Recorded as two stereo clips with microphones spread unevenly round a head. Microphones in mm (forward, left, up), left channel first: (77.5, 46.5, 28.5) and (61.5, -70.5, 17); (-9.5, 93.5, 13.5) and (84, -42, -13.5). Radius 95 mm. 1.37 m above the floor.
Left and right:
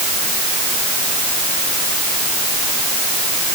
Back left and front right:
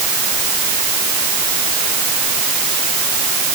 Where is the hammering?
I don't hear hammering.